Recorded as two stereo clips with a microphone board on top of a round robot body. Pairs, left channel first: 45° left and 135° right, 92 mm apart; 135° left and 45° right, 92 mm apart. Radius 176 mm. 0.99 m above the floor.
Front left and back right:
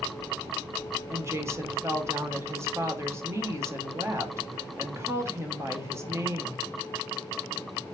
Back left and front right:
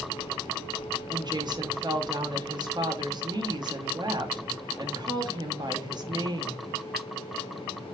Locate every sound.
1.1 s a woman speaking: 80° right, 1.3 m